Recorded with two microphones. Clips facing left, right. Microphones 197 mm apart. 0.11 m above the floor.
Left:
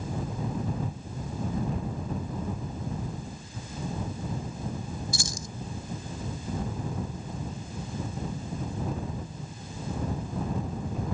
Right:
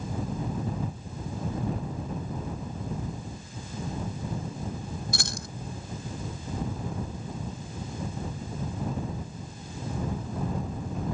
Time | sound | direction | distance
5.1 | keys jangling | 75° right (ahead or behind) | ?